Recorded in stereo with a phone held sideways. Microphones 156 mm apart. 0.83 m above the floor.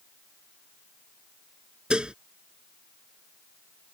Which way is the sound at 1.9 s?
5° right (ahead or behind).